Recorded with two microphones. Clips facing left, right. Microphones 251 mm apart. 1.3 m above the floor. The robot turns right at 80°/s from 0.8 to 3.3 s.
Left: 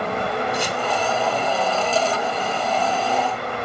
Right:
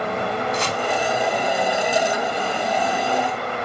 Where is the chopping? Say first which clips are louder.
Even; 10° left (ahead or behind), 2.0 m; by 0.8 s 5° left (ahead or behind), 2.0 m.